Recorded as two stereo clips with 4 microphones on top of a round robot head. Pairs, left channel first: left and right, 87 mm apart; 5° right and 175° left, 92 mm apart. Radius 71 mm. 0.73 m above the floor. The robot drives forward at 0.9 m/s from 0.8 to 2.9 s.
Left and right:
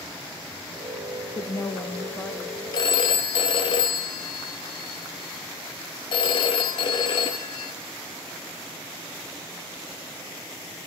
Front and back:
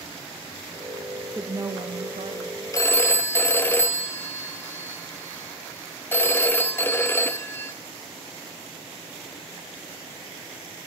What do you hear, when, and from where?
1.4 s a woman speaking: 90° left, 0.5 m; by 2.6 s 165° left, 1.3 m
2.7 s a phone ringing: 50° left, 0.7 m; by 7.7 s 60° left, 0.6 m